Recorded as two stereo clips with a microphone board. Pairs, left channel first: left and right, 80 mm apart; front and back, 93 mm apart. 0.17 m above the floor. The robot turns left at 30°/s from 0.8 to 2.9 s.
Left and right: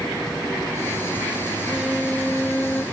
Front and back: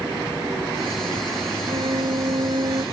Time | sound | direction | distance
1.6 | a violin | 165° right | ?